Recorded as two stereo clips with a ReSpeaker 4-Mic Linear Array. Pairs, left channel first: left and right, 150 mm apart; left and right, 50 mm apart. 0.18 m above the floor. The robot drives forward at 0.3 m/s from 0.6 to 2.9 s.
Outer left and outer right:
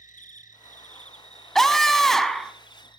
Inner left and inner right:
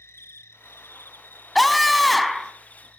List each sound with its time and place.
0.0 s an insect: 60° left (ahead or behind), 0.7 m; by 3.0 s 30° left (ahead or behind), 1.2 m
1.6 s a scream: centre (ahead or behind), 1.0 m